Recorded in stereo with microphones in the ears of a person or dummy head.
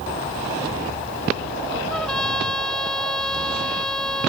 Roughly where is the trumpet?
Centre.